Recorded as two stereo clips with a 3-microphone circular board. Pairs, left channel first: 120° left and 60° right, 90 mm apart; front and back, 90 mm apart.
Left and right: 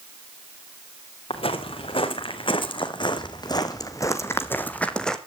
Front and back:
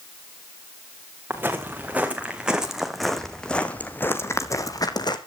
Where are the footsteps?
110° left, 2.5 m; by 5.2 s 35° left, 1.6 m.